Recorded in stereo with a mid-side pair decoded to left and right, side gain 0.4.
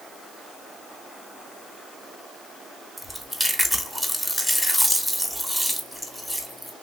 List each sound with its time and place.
3.0 s chewing: 10° left, 1.1 m